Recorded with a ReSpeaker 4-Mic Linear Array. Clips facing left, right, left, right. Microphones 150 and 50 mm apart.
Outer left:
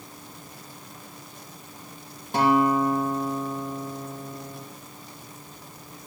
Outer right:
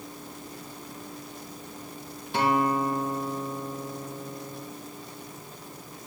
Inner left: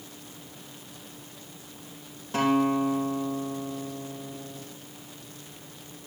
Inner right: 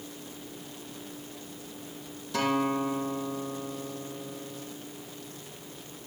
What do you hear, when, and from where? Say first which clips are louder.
2.3 s a guitar: outer left 4 dB, inner left 4 dB; 45° left (ahead or behind), 6 m